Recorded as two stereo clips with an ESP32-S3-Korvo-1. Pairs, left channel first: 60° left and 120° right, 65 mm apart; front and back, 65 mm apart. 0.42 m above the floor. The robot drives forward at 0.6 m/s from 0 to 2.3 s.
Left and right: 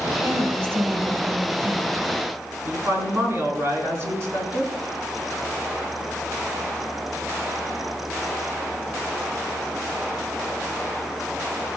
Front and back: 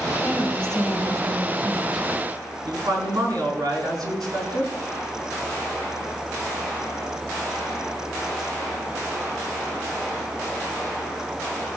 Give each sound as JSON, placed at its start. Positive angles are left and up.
{"t": 0.2, "sound": "a woman speaking", "azimuth_deg": -70, "distance_m": 2.5}
{"t": 2.6, "sound": "a woman speaking", "azimuth_deg": -170, "distance_m": 4.5}